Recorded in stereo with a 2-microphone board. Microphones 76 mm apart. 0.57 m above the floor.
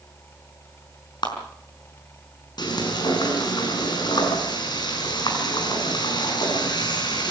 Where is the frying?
70° left (ahead or behind), 6 m.